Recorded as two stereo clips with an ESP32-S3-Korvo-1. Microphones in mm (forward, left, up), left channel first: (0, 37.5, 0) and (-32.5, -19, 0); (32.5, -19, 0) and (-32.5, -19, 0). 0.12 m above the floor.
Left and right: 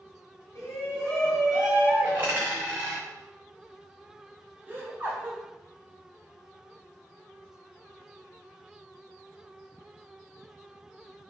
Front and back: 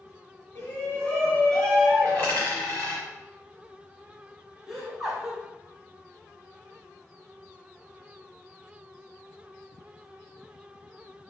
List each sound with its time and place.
0.6 s a shout: 30° left, 1.5 m; by 2.4 s 100° right, 1.4 m
2.0 s a dropped coin: 55° right, 1.8 m
4.7 s laughter: 100° right, 1.3 m